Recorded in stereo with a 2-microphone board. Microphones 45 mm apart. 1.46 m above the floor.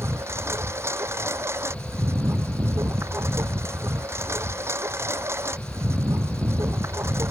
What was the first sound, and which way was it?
A lawn mower, 85° right.